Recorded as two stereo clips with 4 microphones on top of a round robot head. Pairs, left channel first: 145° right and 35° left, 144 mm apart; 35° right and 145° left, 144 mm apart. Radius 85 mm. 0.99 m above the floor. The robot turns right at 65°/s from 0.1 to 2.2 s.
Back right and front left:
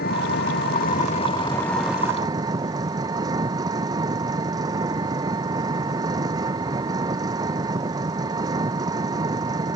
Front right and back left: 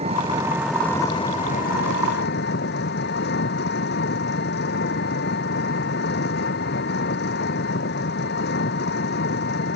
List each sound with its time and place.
0.0 s an engine running: 165° right; by 9.8 s 30° right